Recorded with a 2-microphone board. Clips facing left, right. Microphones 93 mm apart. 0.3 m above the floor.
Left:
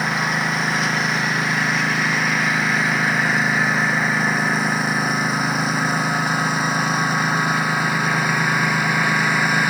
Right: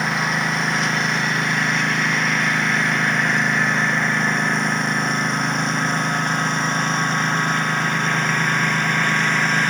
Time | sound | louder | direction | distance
0.0 | a lawn mower | even | centre (ahead or behind) | ?